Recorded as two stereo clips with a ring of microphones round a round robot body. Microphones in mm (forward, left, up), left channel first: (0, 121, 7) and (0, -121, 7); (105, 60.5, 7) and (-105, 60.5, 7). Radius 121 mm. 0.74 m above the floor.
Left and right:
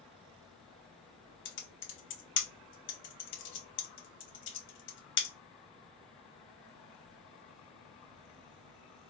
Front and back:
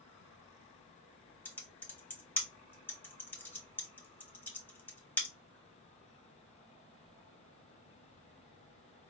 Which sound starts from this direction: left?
Typing on a keyboard, at 1.4 s.